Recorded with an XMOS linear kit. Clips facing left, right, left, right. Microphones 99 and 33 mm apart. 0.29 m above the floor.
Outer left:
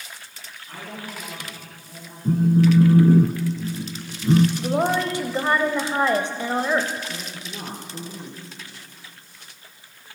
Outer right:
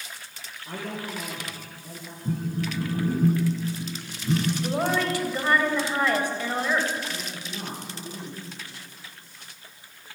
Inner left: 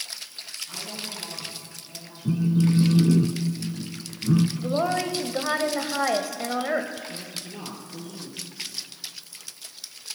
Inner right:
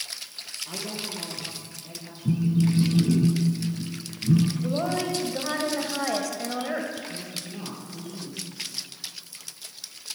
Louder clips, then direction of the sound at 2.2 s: Outer left 12 dB, inner left 1 dB; 35° left (ahead or behind).